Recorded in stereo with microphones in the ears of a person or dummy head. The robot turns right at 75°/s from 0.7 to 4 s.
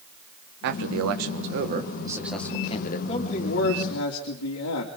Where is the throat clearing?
No throat clearing in this recording.